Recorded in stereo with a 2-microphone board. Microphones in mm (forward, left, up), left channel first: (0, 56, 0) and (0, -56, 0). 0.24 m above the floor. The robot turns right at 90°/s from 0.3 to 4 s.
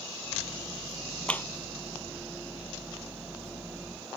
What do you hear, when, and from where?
1.3 s a clap: 10° left (ahead or behind); by 1.5 s 25° left (ahead or behind)